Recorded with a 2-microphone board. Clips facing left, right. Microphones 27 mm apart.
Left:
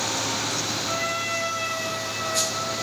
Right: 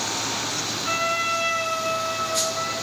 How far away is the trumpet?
About 0.7 m.